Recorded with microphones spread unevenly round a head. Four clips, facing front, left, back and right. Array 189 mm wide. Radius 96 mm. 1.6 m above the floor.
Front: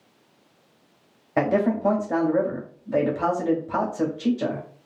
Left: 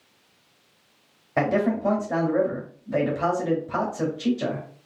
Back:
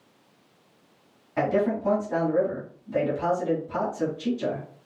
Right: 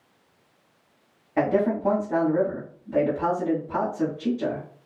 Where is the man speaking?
15° left, 2 m.